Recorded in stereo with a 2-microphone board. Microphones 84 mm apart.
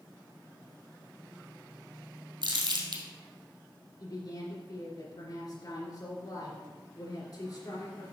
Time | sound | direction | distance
2.4 | crumpling | 75° right (ahead or behind) | 2 m
4.0 | a woman speaking | 55° left (ahead or behind) | 3 m